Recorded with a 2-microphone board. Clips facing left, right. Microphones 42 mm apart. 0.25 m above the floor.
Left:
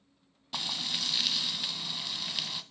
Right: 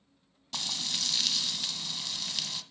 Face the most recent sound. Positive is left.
turn(degrees=10)  # may be behind; listen again after turning